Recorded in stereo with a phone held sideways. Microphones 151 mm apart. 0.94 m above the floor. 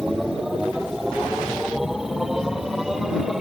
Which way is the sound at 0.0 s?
5° right (ahead or behind).